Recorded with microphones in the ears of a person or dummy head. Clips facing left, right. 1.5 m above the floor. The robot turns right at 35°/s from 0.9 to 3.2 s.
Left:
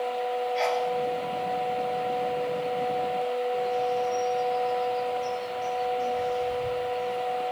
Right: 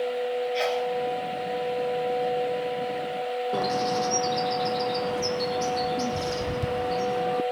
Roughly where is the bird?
Right.